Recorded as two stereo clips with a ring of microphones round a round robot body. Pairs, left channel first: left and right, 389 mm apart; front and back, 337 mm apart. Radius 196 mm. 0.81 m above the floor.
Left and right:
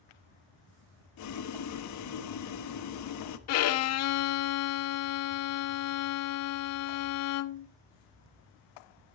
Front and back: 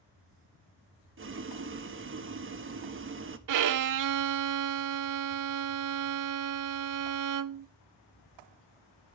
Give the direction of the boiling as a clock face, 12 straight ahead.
8 o'clock.